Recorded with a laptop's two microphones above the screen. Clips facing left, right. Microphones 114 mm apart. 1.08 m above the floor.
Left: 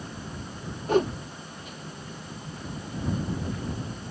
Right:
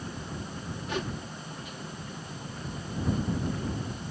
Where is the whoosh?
45° left (ahead or behind).